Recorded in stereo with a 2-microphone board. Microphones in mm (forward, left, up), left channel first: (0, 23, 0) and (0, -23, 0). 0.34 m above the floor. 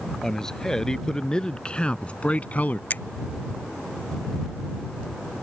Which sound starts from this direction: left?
A finger snap, at 2.9 s.